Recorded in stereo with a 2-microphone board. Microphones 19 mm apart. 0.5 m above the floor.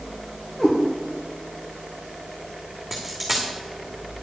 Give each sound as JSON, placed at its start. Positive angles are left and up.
{"t": 0.6, "sound": "a cat meowing", "side_deg": 75, "distance_m": 2.5}
{"t": 2.9, "sound": "a dropped coin", "side_deg": 5, "distance_m": 2.5}